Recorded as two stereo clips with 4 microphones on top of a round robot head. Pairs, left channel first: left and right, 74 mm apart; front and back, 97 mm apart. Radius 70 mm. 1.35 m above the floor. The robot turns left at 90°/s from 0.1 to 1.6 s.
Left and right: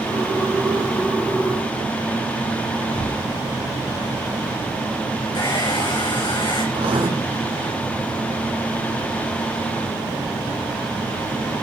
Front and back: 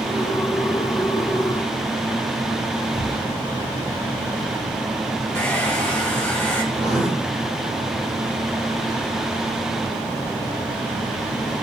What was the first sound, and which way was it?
A gunshot, 95° left.